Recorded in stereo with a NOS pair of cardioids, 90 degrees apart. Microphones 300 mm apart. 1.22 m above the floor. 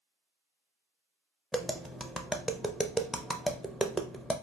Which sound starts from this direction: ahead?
Tapping, at 1.5 s.